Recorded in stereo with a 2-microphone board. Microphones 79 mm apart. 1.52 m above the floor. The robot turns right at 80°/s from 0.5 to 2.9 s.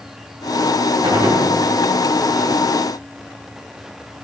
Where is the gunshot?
95° right, 5.5 m; by 1.5 s 60° right, 5.5 m.